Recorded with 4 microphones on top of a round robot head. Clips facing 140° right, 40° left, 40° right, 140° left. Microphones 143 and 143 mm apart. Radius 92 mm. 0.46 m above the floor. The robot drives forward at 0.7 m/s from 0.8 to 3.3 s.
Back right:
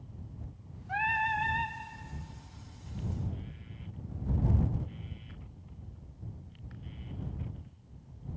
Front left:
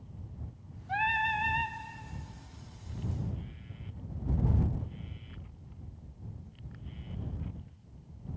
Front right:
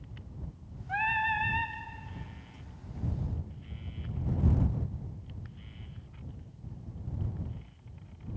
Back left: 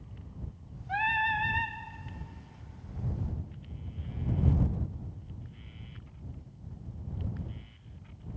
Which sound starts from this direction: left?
Singing, at 0.9 s.